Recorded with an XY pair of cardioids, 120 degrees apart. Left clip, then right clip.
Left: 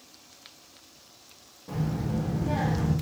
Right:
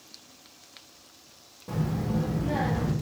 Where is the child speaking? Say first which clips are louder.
Right 1 dB; 25° right, 0.7 m; by 2.9 s 65° right, 1.4 m.